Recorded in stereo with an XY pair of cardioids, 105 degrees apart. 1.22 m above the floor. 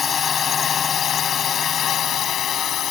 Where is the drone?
40° left; by 2.9 s 60° left.